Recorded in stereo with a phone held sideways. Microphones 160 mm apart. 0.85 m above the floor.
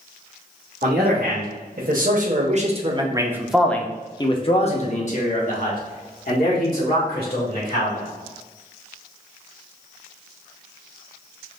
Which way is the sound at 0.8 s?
75° right (ahead or behind).